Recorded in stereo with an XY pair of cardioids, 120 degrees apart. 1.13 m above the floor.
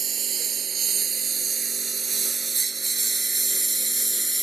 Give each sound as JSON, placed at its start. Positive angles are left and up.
{"t": 0.0, "sound": "a lawn mower", "azimuth_deg": -45}